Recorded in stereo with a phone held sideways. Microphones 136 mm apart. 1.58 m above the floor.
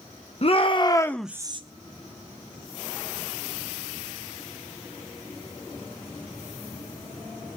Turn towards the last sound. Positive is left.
turn(degrees=-40)  # may be behind; listen again after turning